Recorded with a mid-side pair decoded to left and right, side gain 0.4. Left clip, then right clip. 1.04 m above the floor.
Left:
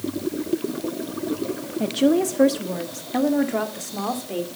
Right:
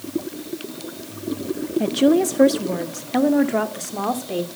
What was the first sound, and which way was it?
A woman speaking, 15° right.